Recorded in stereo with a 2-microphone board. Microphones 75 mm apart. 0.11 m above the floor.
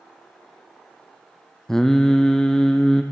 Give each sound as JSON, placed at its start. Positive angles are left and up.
{"t": 1.7, "sound": "singing", "side_deg": 5, "distance_m": 1.5}